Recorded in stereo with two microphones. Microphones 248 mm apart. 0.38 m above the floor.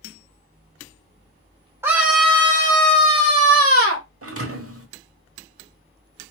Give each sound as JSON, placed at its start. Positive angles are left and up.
{"t": 1.8, "sound": "a scream", "side_deg": -10, "distance_m": 0.9}
{"t": 4.2, "sound": "a thud", "side_deg": -65, "distance_m": 0.8}